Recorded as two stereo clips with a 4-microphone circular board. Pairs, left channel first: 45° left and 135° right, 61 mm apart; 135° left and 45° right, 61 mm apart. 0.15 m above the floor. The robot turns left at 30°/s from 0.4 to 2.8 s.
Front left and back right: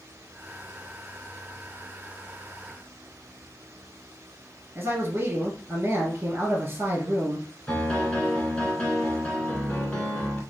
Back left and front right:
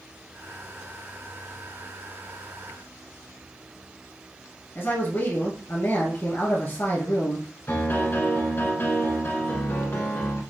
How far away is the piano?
About 1.6 m.